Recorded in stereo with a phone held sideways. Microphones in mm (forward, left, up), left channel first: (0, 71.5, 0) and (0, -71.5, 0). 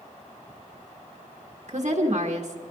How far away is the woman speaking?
About 1.6 m.